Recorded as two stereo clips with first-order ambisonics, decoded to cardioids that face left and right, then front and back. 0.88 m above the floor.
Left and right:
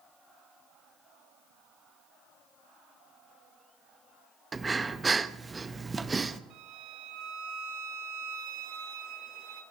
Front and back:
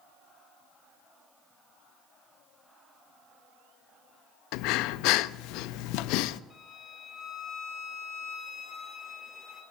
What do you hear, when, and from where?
4.5 s breathing: 15° right, 0.6 m
6.5 s a violin: 70° right, 3 m